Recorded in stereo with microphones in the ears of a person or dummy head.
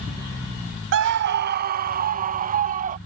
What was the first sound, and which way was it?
A scream, 65° right (ahead or behind).